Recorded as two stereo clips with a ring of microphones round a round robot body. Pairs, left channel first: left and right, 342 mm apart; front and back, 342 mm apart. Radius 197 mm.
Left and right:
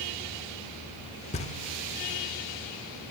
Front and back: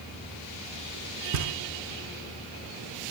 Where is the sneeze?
I don't hear a sneeze.